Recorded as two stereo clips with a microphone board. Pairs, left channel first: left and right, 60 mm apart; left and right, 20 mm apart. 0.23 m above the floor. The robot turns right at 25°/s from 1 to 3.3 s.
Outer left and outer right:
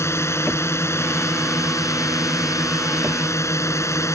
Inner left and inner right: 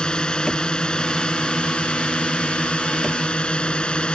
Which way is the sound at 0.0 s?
60° left.